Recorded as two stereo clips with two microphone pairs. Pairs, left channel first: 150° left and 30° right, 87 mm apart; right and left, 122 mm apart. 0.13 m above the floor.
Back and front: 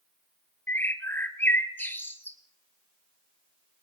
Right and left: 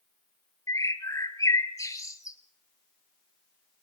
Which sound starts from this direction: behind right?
A bird, at 0.7 s.